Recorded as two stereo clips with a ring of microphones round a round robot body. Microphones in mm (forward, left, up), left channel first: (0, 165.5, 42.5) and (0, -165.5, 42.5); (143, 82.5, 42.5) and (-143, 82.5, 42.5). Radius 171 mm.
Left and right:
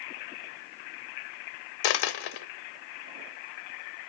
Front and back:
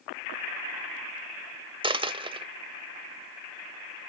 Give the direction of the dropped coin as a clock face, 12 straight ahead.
8 o'clock.